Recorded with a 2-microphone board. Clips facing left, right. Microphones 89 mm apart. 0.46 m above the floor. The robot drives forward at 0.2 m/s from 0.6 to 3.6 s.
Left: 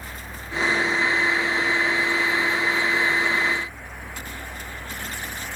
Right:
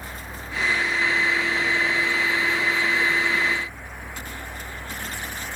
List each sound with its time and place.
Only background noise.